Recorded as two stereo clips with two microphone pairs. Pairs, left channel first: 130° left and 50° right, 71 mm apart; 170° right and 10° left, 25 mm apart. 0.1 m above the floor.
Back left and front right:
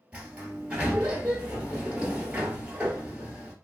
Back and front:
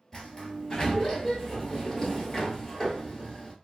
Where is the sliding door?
120° right, 1.2 m.